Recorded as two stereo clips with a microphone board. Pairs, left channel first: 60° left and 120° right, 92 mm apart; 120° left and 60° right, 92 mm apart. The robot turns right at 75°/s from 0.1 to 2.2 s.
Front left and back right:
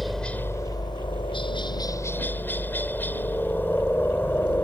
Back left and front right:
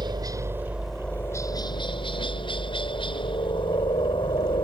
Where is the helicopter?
30° right; by 4.6 s 125° left.